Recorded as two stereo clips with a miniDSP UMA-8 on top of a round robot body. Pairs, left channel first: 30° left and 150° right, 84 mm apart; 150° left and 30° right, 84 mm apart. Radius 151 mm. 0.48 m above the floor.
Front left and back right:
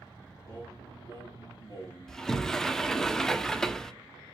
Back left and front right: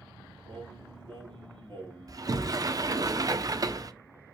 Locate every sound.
0.5 s singing: straight ahead, 4 m
2.1 s a sliding door: 50° right, 1.3 m